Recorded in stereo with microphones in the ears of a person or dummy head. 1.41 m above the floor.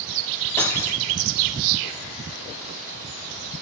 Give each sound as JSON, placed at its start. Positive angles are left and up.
{"t": 0.6, "sound": "cutlery clinking", "side_deg": 20, "distance_m": 0.6}